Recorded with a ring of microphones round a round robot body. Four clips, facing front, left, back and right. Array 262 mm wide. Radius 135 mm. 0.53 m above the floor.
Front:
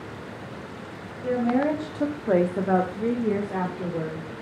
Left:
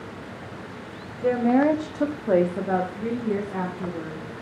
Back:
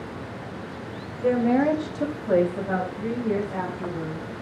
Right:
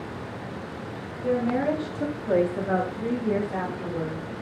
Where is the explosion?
I don't hear an explosion.